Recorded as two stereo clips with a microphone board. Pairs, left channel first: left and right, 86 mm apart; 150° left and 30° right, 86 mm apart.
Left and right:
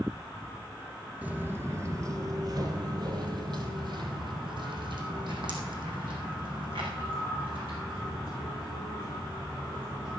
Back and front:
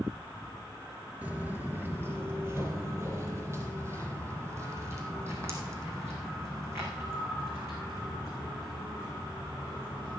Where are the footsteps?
60° right, 1.1 m; by 10.2 s 85° right, 6 m.